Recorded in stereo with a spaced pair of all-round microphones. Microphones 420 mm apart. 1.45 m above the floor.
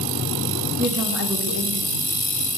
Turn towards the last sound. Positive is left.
turn(degrees=-30)  # may be behind; listen again after turning